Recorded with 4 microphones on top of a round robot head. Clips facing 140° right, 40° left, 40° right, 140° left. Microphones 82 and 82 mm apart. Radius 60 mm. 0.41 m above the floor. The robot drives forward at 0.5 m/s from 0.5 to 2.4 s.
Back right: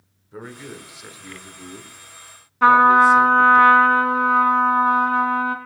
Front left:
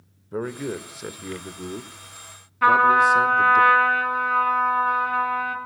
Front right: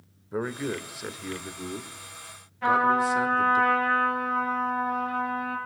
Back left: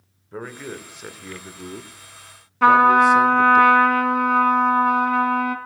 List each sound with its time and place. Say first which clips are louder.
0.3 s a man speaking: front left 8 dB, front right 3 dB; 35° left, 1.5 m; by 3.6 s 90° left, 1.1 m
2.6 s a trumpet: back right 4 dB, back left 9 dB; 155° left, 1.5 m